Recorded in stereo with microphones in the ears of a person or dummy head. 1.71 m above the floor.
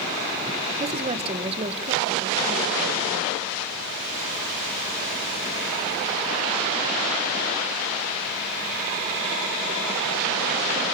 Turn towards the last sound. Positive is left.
turn(degrees=-35)  # may be behind; listen again after turning